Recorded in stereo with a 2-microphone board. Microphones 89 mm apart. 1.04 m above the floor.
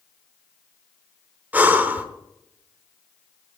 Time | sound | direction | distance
1.5 | breathing | 20° right (ahead or behind) | 1.1 m